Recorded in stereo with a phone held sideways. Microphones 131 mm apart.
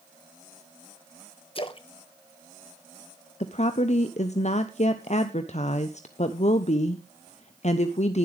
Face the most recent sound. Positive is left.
turn(degrees=55)  # may be behind; listen again after turning